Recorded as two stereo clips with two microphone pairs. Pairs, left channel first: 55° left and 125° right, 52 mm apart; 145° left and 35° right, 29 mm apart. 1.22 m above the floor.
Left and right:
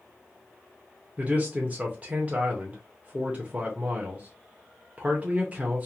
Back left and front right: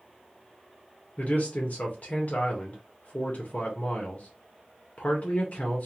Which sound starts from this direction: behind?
A man speaking, at 1.2 s.